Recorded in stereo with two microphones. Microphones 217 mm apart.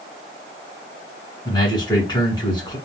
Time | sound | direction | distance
1.4 | a man speaking | 20° left (ahead or behind) | 1.6 m